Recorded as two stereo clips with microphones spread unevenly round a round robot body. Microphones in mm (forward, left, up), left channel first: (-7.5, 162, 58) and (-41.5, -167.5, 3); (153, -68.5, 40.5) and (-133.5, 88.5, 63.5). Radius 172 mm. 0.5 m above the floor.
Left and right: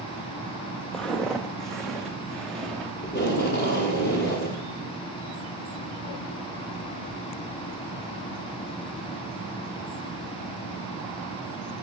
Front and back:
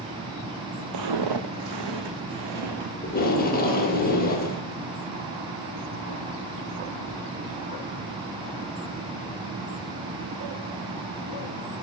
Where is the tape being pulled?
25° left, 2.0 m.